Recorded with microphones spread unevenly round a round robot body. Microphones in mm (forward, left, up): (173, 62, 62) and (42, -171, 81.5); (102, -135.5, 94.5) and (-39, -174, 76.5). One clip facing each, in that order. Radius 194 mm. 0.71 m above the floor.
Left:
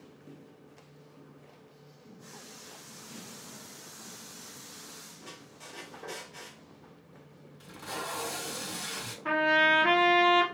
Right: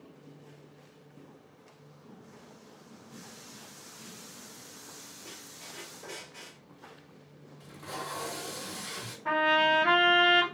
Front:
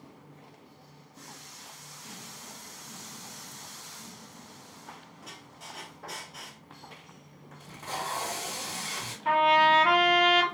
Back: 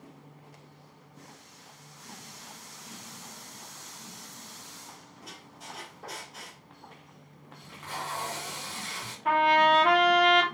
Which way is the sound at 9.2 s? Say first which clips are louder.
Left 1 dB, even; 125° left.